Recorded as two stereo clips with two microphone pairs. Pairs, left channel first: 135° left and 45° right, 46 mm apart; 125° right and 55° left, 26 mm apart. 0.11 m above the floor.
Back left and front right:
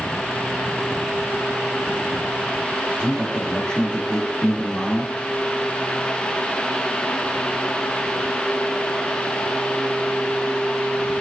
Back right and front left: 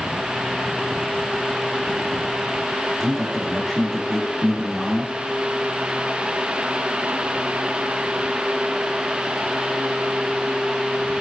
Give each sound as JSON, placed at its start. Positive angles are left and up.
{"t": 3.0, "sound": "a man speaking", "azimuth_deg": 175, "distance_m": 1.1}